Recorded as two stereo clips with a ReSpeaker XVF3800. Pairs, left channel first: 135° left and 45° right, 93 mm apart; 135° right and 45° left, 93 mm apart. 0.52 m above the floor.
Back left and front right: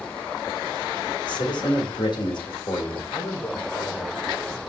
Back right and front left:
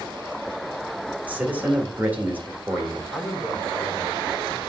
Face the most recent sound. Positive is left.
turn(degrees=140)